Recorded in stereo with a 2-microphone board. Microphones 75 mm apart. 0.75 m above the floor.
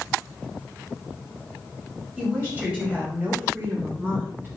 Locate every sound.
2.2 s a woman speaking: 20° right (ahead or behind), 4 m; by 4.5 s 35° right (ahead or behind), 3.5 m